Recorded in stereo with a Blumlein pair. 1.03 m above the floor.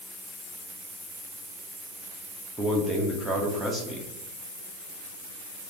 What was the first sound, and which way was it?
A man speaking, 5° right.